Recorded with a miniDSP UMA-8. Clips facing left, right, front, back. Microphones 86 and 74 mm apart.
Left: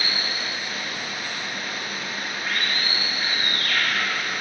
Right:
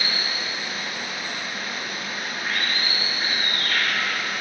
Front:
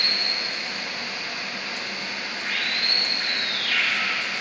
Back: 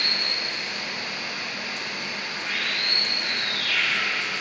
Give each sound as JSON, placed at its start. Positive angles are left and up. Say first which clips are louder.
{"t": 0.0, "sound": "running water", "louder": "even, even", "azimuth_deg": -25, "distance_m": 2.5}